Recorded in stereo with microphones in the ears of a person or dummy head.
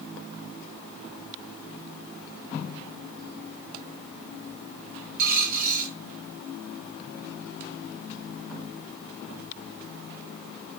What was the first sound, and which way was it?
A dropped coin, 50° right (ahead or behind).